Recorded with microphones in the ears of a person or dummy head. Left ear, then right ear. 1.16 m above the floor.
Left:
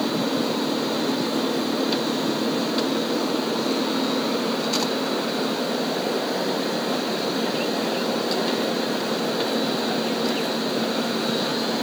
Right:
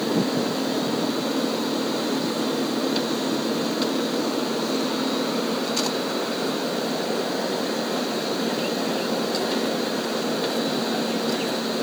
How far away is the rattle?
I don't hear a rattle.